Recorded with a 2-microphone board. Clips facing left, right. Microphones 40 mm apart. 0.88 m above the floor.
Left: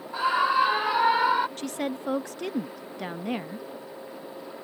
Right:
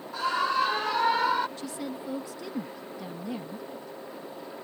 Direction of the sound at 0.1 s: 20° left (ahead or behind).